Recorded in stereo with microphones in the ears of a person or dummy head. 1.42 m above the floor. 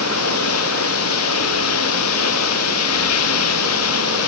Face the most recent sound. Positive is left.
turn(degrees=85)